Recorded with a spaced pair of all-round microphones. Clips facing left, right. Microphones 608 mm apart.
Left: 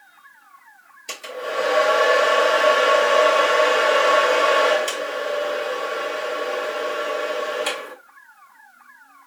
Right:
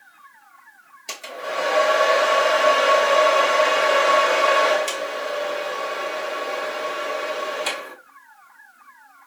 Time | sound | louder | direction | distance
1.1 | a hair dryer | left 3 dB | 15° right (ahead or behind) | 1.3 m